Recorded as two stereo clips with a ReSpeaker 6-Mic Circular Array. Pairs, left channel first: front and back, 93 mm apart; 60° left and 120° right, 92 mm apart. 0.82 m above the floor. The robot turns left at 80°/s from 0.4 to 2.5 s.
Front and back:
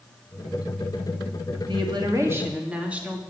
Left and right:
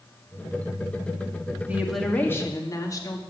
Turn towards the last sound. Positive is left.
turn(degrees=105)